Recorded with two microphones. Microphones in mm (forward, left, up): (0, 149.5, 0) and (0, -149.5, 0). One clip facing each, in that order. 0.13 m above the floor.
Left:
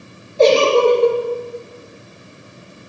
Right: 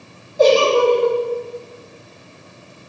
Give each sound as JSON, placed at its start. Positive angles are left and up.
{"t": 0.4, "sound": "a giggle", "side_deg": 30, "distance_m": 2.5}